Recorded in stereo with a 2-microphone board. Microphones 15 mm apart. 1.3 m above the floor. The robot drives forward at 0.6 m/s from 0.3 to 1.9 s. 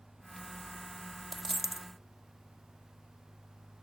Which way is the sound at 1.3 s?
20° right (ahead or behind).